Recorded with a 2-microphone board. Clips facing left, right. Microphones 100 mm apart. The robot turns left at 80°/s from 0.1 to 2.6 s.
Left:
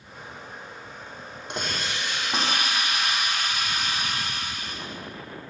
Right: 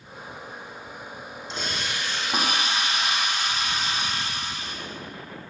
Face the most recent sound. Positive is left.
turn(degrees=-25)